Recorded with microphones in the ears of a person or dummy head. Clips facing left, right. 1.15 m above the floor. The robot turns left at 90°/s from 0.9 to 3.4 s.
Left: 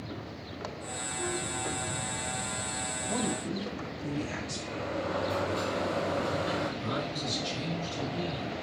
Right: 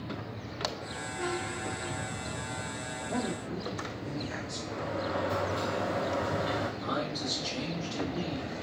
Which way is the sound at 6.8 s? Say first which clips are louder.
Even; 50° right (ahead or behind).